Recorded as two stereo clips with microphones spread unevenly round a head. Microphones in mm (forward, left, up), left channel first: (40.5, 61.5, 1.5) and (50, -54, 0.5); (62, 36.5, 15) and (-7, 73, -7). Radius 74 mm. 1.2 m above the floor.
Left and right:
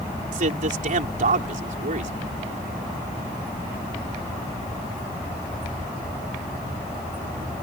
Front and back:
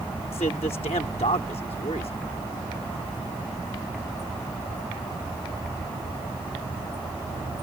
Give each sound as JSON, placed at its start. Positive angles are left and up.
{"t": 0.3, "sound": "a man speaking", "azimuth_deg": -70}